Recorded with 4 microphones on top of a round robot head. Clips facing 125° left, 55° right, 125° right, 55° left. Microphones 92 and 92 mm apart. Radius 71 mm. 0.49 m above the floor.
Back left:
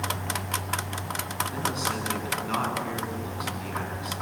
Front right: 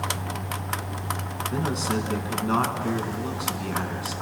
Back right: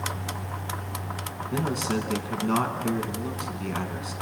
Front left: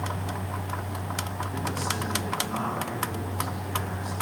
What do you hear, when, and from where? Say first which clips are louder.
1.5 s a man speaking: front right 6 dB, back right 6 dB; 110° right, 5.5 m